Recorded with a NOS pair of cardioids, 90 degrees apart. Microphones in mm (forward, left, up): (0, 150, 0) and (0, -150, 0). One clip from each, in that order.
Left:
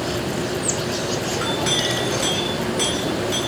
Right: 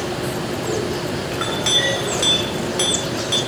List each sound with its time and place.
1.3 s a clink: 45° right, 3 m